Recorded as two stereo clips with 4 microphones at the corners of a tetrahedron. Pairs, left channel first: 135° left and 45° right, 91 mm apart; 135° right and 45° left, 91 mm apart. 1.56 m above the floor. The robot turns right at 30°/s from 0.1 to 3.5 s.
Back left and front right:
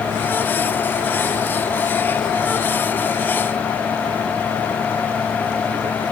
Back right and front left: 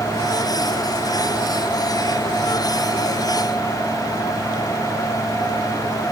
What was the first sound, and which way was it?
Only background noise.